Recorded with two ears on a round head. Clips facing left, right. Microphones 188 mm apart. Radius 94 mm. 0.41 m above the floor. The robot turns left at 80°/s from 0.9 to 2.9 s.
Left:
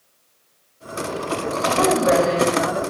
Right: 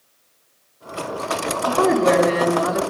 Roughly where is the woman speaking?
Ahead.